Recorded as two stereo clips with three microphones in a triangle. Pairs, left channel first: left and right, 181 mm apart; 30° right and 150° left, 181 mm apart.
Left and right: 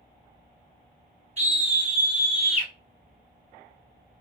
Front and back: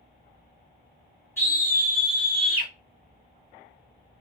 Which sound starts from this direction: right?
A scream, at 1.4 s.